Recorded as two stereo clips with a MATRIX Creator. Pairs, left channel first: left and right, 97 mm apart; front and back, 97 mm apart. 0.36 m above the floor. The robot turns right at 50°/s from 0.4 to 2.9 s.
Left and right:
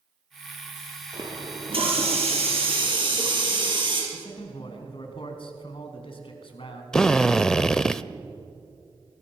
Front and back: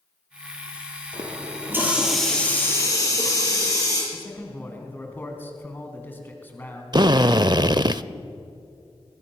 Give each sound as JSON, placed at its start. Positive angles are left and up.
{"t": 1.1, "sound": "a running tap", "azimuth_deg": -145, "distance_m": 6.0}
{"t": 4.1, "sound": "a man speaking", "azimuth_deg": 70, "distance_m": 4.0}
{"t": 6.9, "sound": "a drill", "azimuth_deg": 170, "distance_m": 0.6}